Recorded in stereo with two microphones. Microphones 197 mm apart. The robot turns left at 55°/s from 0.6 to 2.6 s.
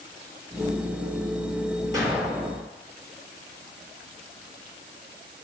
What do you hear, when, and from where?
1.9 s an explosion: 160° right, 4 m; by 2.6 s 165° left, 4 m